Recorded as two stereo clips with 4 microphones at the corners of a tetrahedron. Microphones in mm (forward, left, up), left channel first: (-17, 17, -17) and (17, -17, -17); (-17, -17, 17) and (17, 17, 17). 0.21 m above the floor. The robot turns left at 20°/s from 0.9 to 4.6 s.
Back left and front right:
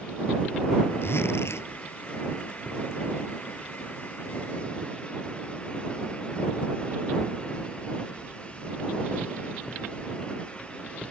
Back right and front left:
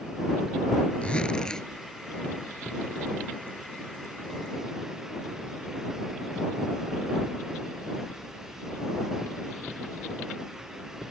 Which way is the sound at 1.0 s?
160° left.